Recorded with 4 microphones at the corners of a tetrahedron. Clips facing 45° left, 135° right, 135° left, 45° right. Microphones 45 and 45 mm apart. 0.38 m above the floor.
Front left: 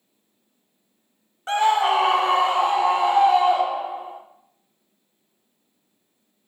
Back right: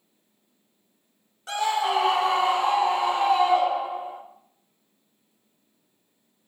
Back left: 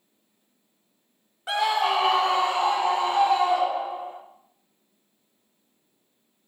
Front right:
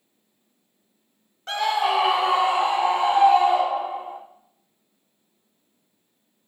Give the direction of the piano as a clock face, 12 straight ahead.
I don't hear a piano.